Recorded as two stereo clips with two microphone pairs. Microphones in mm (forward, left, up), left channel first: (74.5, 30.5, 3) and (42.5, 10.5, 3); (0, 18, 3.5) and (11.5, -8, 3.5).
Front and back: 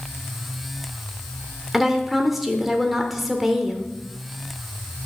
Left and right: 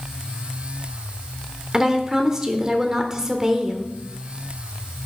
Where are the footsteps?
No footsteps in this recording.